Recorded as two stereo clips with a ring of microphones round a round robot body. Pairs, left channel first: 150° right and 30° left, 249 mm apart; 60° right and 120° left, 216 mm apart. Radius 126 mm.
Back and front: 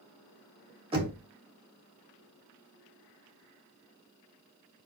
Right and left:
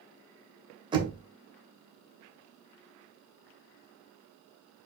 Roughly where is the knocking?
Left.